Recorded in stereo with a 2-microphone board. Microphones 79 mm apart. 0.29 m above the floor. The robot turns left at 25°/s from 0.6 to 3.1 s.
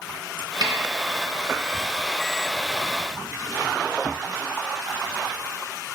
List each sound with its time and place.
0.6 s a snare drum: 60° right (ahead or behind), 2.5 m